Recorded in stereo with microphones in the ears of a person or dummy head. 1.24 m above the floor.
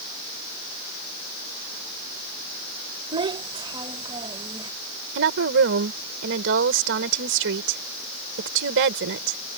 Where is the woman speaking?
70° right (ahead or behind).